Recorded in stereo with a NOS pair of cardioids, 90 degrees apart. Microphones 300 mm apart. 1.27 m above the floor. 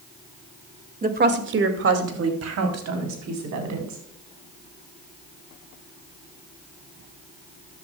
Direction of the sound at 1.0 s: 25° right.